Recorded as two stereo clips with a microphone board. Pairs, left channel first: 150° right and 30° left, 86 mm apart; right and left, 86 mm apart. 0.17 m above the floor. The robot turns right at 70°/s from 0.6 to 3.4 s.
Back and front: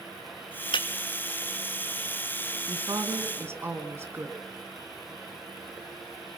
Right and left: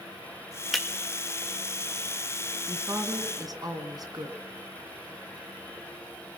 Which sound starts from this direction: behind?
Breaking glass, at 0.7 s.